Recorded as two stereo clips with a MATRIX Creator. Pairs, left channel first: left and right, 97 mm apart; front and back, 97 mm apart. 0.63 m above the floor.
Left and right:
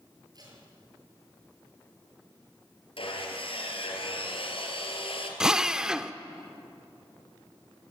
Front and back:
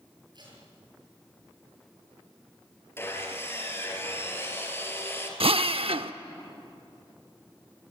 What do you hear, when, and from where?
0.3 s tape being pulled: 140° right, 8 m
3.0 s sawing: 65° left, 4 m
5.4 s a drill: 175° right, 0.8 m